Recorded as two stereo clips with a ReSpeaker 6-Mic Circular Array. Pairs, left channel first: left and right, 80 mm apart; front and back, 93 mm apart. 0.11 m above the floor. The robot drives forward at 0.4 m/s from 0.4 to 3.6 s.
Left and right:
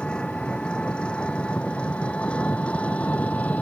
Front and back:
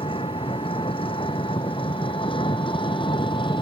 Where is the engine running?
10° left; by 3.6 s 15° left.